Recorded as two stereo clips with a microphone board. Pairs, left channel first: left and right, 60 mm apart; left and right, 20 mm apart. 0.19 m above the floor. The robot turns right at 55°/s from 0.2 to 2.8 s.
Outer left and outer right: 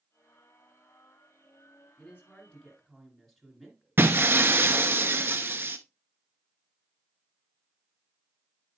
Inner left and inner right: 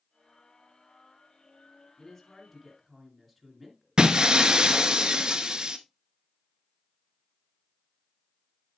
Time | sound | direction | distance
2.0 | a woman speaking | 130° left | 2.5 m
4.0 | breaking glass | 35° right (ahead or behind) | 0.7 m